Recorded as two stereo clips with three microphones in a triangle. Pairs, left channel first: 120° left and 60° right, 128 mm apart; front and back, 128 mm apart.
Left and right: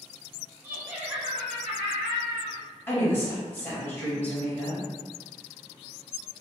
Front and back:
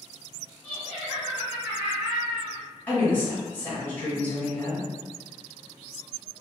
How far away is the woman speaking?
About 1.2 m.